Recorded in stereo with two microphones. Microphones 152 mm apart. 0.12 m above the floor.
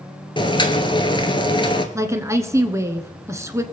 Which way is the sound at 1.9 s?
20° right (ahead or behind).